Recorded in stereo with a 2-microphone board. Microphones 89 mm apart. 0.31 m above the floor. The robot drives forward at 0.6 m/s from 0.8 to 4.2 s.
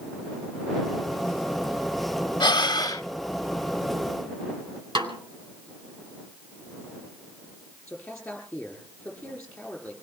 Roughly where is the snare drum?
Right.